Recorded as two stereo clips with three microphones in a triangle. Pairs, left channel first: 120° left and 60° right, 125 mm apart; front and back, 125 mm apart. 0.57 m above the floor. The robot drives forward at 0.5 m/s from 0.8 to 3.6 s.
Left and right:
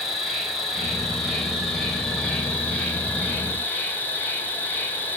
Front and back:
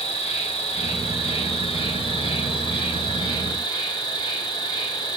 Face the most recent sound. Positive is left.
turn(degrees=45)